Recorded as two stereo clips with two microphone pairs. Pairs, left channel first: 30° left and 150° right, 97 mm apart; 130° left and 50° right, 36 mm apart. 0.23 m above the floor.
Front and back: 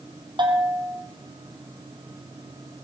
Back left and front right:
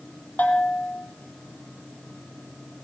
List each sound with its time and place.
0.4 s a bell: 175° left, 4 m